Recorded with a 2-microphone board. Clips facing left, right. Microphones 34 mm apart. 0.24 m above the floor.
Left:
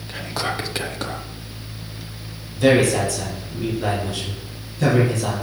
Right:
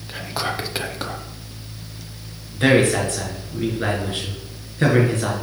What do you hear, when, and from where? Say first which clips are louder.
0.1 s whispering: even; 5° right (ahead or behind), 1.0 m
2.5 s a man speaking: even; 45° right (ahead or behind), 3 m